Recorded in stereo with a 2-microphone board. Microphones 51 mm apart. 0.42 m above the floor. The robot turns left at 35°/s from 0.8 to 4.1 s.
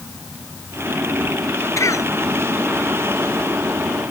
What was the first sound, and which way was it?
A cough, 80° left.